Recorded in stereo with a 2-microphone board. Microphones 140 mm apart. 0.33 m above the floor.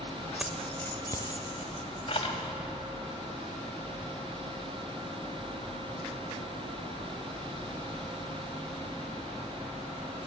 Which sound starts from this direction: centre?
Keys jangling, at 0.4 s.